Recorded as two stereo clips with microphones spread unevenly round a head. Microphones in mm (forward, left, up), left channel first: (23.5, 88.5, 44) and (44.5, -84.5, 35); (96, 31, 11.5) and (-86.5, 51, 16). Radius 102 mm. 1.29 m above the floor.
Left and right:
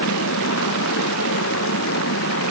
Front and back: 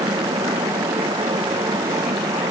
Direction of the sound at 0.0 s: 100° left.